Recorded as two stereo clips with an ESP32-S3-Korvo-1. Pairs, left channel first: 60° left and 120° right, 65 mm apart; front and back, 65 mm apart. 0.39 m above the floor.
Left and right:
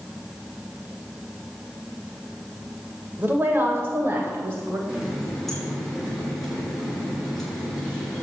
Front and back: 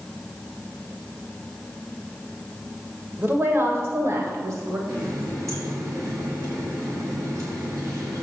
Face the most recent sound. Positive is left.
turn(degrees=145)